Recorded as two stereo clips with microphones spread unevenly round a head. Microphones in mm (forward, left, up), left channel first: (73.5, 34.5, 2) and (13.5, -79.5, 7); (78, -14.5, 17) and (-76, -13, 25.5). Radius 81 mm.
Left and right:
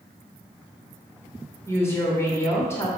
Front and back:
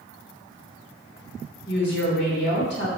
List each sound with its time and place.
1.7 s a woman speaking: 5° right, 3 m